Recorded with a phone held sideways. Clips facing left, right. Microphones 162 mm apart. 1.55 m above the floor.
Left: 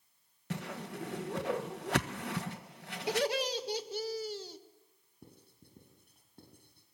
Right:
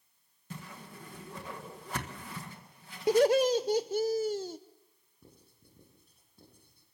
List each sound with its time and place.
0.5 s a whoosh: 75° left (ahead or behind), 1.3 m
3.1 s laughter: 45° right (ahead or behind), 0.8 m
5.2 s writing: 65° left (ahead or behind), 7.5 m